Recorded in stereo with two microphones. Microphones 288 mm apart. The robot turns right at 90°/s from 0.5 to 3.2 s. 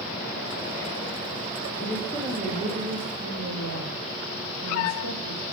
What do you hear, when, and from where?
1.8 s a woman speaking: 150° left, 2.5 m; by 5.4 s 85° right, 2.5 m